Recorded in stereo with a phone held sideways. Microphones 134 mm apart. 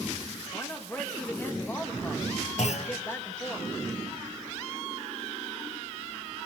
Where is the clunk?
60° left (ahead or behind), 0.7 m.